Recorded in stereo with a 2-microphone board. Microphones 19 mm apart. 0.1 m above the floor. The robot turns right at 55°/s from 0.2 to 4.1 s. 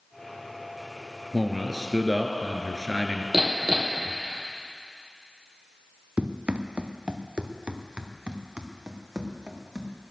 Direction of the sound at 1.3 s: 170° right.